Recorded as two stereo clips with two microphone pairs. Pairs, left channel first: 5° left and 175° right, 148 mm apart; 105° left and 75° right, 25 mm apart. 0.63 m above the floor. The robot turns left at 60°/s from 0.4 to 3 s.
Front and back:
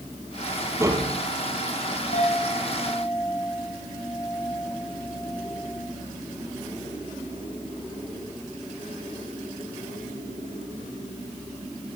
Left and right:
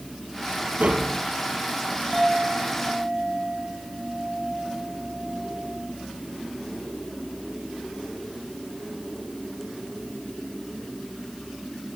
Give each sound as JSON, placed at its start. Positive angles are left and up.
{"t": 0.8, "sound": "tapping", "azimuth_deg": -100, "distance_m": 3.5}
{"t": 2.1, "sound": "a clink", "azimuth_deg": 20, "distance_m": 8.0}